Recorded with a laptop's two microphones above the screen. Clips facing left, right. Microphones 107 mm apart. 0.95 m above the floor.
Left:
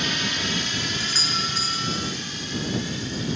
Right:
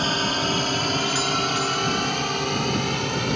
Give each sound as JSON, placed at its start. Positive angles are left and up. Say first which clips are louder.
{"t": 0.0, "sound": "a drone", "louder": "right 5 dB", "side_deg": -40}
{"t": 1.0, "sound": "a doorbell", "louder": "right 7 dB", "side_deg": -15}